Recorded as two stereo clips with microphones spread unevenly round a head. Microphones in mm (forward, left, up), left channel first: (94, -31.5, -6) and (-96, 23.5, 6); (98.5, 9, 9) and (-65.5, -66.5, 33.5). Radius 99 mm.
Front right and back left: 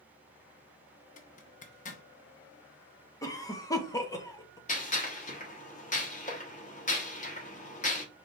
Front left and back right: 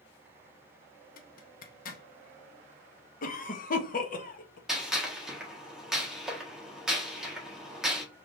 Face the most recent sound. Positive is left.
turn(degrees=-70)